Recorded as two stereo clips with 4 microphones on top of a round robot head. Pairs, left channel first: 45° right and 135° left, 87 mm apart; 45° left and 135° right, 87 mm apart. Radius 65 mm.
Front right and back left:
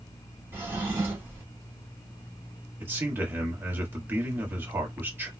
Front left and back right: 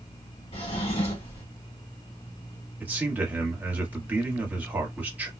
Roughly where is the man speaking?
Behind.